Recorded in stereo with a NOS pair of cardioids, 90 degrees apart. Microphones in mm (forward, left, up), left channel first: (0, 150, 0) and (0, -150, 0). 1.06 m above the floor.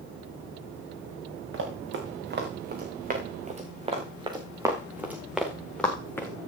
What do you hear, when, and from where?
1.5 s running footsteps: 45° right, 4.5 m; by 6.3 s 10° left, 4 m